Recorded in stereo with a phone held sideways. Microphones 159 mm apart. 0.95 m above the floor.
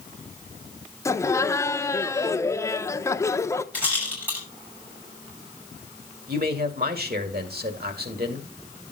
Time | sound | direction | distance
1.1 | laughter | 15° left (ahead or behind) | 0.8 m
3.7 | a rattle | 10° right (ahead or behind) | 6.5 m
6.3 | a man speaking | 70° right (ahead or behind) | 2 m